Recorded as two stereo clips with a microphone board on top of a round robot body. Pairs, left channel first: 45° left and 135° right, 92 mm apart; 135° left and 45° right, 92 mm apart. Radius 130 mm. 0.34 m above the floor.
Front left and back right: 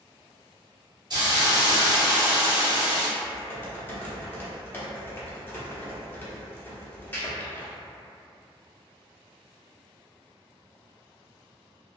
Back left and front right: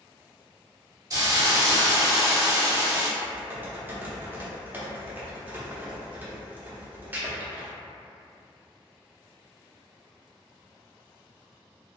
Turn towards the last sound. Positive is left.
turn(degrees=0)